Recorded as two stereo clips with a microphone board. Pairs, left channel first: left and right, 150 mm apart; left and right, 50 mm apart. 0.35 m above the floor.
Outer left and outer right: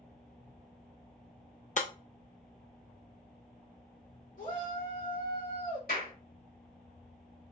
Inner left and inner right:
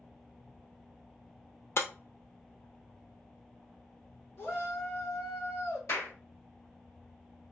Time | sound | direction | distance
1.8 | breaking glass | 55° left (ahead or behind) | 0.7 m
4.4 | a shout | 70° left (ahead or behind) | 3 m
5.9 | a clap | 70° left (ahead or behind) | 3 m